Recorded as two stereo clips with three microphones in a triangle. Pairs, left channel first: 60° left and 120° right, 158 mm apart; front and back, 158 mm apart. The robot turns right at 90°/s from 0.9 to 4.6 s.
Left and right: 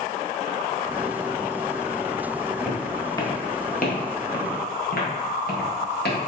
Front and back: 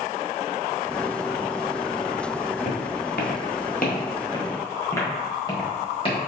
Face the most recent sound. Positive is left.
turn(degrees=55)